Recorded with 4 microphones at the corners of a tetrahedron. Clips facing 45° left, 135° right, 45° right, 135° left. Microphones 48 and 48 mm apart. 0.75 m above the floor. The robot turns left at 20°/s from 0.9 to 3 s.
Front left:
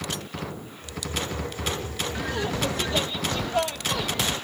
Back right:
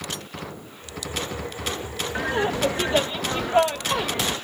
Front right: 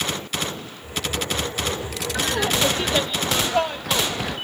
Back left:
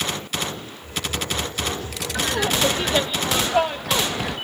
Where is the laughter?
135° right; by 4.3 s 155° right.